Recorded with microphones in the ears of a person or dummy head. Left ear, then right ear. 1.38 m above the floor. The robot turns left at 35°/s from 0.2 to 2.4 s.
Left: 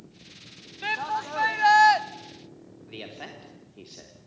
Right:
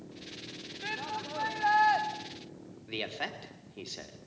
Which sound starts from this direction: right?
A man speaking, at 2.9 s.